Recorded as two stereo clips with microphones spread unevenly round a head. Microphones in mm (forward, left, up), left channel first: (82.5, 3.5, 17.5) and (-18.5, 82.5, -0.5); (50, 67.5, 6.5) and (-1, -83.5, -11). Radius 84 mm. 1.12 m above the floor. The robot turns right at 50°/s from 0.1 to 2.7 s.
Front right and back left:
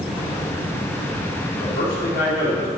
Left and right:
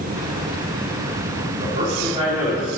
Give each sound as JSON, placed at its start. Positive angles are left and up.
{"t": 1.6, "sound": "a man speaking", "azimuth_deg": -75, "distance_m": 3.0}